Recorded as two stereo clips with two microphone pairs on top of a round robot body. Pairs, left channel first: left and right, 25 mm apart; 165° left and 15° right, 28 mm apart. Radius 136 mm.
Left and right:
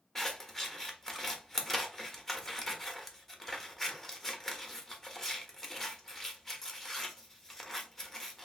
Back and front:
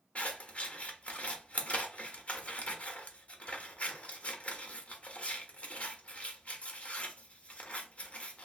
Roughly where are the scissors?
Behind left.